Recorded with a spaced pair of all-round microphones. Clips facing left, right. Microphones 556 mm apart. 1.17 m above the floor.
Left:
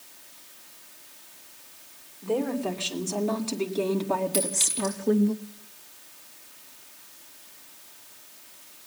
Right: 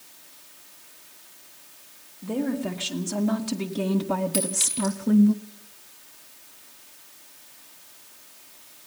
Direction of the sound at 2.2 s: 40° right (ahead or behind).